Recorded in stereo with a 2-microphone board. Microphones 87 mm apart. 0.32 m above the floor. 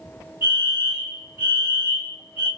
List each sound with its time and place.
0.4 s a fire alarm: 25° right (ahead or behind), 2 m